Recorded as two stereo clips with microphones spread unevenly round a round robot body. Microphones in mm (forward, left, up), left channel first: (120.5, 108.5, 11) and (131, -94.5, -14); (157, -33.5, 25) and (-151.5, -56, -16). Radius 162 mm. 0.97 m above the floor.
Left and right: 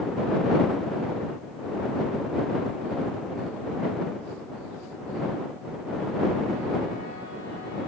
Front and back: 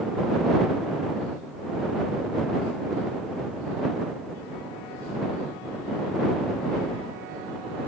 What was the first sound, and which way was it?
Only background noise.